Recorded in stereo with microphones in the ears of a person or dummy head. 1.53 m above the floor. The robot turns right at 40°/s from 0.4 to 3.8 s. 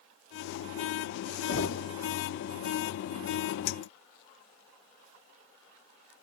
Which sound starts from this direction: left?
Knocking, at 1.5 s.